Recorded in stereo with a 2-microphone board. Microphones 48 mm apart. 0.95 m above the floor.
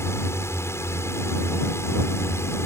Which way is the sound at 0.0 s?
65° left (ahead or behind).